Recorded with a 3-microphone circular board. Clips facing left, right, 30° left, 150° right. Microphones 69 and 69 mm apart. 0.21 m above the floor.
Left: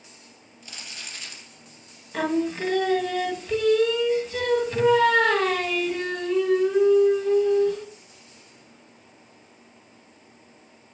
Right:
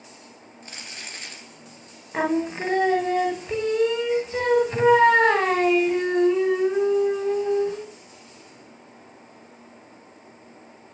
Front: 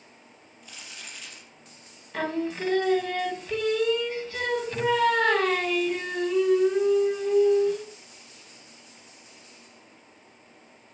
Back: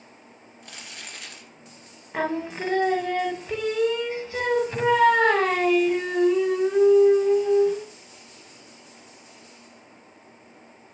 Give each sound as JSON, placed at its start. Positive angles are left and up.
{"t": 0.6, "sound": "crumpling", "azimuth_deg": -135, "distance_m": 3.0}
{"t": 2.1, "sound": "singing", "azimuth_deg": -110, "distance_m": 1.3}